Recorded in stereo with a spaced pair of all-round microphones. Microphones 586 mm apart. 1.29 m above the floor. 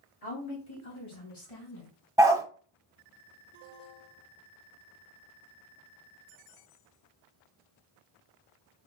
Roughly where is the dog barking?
Centre.